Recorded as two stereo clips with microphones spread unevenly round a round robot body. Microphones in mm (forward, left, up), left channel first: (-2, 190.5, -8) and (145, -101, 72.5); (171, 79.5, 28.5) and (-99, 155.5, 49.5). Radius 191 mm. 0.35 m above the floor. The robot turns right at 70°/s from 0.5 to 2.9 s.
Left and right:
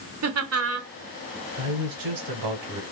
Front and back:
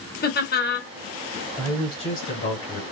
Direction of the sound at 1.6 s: 105° right.